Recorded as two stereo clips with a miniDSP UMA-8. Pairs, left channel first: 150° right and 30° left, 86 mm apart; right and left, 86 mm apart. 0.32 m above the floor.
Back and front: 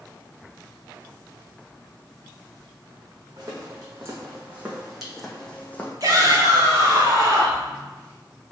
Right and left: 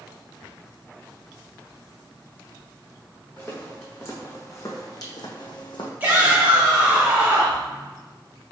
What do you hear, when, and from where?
3.4 s footsteps: 20° right, 1.5 m; by 5.9 s 85° right, 1.0 m
6.0 s a shout: 30° left, 1.4 m